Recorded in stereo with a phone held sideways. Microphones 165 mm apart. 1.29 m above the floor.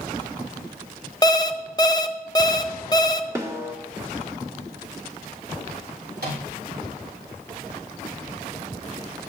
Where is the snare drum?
20° right (ahead or behind), 1.5 m.